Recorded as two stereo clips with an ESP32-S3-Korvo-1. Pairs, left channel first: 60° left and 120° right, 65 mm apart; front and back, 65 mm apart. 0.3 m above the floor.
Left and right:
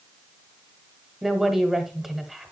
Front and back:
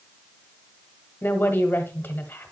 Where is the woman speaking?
35° right, 1.2 m.